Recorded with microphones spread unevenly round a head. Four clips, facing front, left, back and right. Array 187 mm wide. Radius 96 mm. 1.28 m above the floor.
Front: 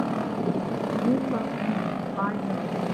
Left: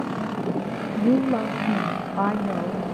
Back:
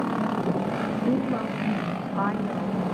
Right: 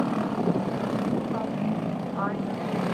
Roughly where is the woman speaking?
Left.